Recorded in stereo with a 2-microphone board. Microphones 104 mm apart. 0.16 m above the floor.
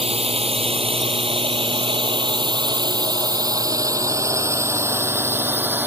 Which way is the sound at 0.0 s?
70° right (ahead or behind).